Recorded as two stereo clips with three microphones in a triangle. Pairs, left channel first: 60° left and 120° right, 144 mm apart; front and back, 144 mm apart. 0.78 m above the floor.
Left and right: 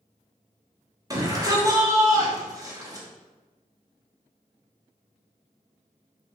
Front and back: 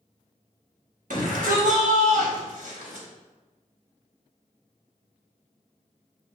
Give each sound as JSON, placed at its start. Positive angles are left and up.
{"t": 1.1, "sound": "a shout", "azimuth_deg": 175, "distance_m": 3.5}